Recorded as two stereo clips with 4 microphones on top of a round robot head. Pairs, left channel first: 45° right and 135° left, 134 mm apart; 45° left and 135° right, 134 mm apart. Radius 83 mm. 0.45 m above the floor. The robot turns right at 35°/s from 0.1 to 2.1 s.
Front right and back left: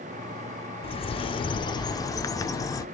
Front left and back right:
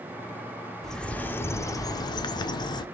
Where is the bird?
40° right, 0.6 m; by 2.9 s 5° left, 0.6 m.